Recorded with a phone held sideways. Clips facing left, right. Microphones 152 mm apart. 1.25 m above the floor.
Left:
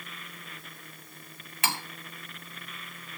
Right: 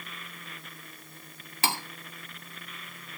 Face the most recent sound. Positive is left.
turn(degrees=-30)  # may be behind; listen again after turning